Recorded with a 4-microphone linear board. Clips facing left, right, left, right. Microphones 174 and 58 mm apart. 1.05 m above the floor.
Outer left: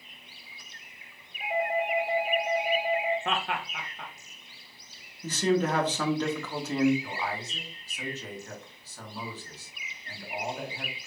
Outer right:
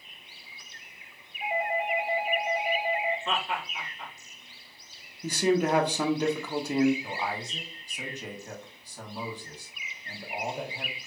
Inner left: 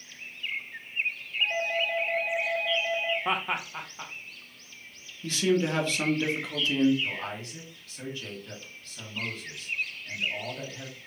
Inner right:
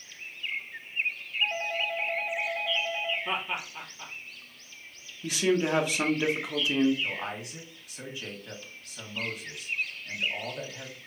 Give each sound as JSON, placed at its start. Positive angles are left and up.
{"t": 1.4, "sound": "a doorbell", "side_deg": 60, "distance_m": 2.5}
{"t": 3.2, "sound": "laughter", "side_deg": 65, "distance_m": 1.1}
{"t": 5.2, "sound": "a man speaking", "side_deg": -10, "distance_m": 1.1}
{"t": 7.0, "sound": "a man speaking", "side_deg": -15, "distance_m": 1.6}